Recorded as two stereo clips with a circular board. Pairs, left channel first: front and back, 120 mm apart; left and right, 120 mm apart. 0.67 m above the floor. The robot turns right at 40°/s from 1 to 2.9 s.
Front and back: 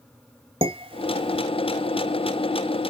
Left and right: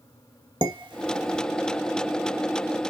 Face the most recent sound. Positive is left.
turn(degrees=-60)